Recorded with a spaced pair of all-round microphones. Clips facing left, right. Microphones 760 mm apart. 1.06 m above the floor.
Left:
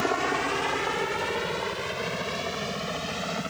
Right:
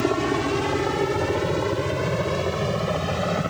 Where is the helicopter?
55° right (ahead or behind); by 3.5 s 65° right (ahead or behind).